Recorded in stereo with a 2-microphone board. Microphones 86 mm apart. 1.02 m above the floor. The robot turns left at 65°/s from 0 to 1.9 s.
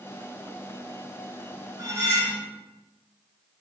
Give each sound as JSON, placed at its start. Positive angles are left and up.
{"t": 1.8, "sound": "cutlery clinking", "side_deg": -45, "distance_m": 1.1}